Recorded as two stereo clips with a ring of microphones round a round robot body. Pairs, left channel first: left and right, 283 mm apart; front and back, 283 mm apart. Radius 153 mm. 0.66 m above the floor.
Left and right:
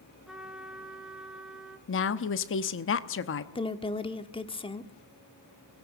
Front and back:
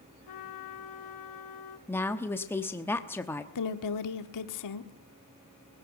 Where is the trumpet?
Straight ahead, 1.6 m.